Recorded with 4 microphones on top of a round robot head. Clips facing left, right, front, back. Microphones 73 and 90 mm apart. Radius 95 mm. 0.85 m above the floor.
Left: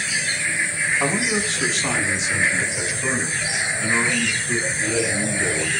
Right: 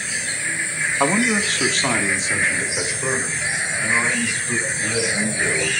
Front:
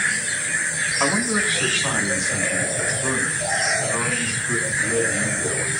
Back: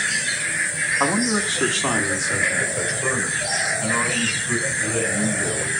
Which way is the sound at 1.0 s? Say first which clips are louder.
Right 3 dB, back 1 dB; 110° right.